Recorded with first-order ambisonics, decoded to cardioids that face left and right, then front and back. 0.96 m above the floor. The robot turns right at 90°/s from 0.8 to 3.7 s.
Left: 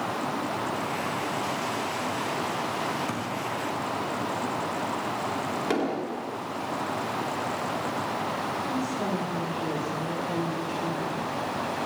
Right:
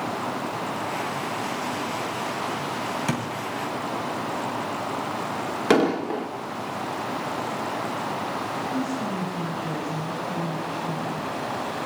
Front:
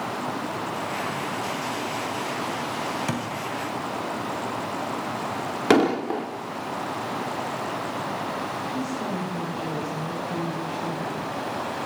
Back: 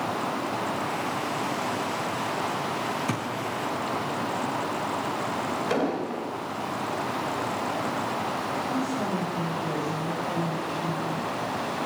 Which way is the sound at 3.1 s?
55° right.